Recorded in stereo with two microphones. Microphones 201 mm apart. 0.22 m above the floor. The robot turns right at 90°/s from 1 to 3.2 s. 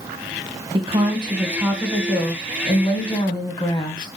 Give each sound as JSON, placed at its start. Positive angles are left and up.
{"t": 0.7, "sound": "a woman speaking", "side_deg": -30, "distance_m": 1.2}